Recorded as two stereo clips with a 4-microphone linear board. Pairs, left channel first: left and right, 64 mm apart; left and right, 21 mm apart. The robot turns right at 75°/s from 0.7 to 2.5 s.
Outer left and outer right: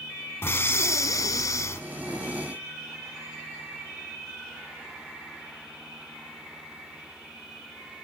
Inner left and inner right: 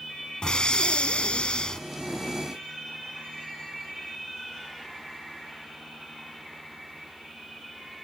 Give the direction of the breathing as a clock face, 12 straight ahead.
10 o'clock.